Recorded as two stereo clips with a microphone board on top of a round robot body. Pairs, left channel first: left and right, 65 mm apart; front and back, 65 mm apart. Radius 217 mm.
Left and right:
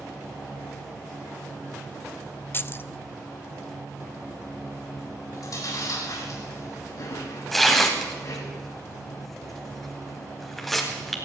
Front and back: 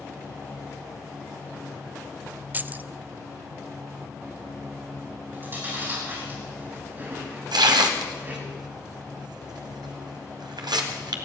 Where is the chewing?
120° left, 7 m.